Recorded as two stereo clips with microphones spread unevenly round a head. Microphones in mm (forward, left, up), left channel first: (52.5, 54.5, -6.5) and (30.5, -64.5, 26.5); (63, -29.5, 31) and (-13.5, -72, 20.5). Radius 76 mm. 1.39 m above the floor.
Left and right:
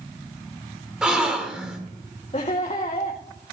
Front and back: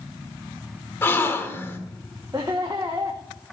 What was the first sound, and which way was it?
A gasp, 30° right.